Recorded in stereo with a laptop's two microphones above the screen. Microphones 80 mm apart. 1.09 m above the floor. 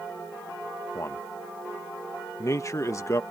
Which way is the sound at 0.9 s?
40° left (ahead or behind).